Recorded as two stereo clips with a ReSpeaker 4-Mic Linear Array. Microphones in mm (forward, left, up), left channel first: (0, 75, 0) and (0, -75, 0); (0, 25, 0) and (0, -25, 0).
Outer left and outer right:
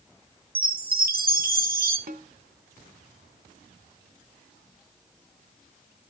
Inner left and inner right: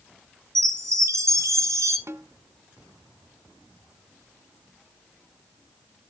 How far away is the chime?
About 2.5 m.